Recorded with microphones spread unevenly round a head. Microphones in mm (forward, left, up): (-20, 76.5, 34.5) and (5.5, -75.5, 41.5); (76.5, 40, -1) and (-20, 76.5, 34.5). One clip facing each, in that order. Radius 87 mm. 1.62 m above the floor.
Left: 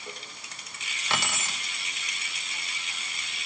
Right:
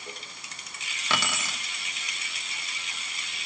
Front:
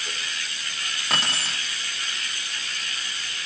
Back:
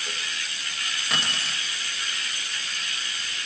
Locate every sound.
1.1 s keys jangling: 95° right, 2.5 m